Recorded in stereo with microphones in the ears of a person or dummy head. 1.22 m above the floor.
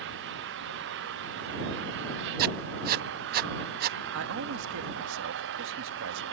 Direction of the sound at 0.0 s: 65° right (ahead or behind).